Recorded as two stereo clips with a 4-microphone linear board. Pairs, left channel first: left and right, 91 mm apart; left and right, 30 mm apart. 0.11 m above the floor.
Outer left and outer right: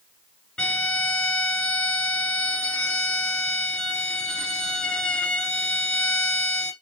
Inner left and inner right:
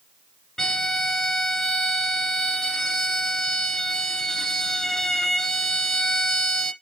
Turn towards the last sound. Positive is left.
turn(degrees=10)  # may be behind; listen again after turning